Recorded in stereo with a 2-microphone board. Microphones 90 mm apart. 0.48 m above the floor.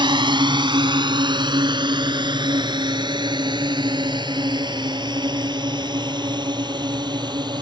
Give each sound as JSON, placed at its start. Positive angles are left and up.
{"t": 0.0, "sound": "a drone", "side_deg": -60}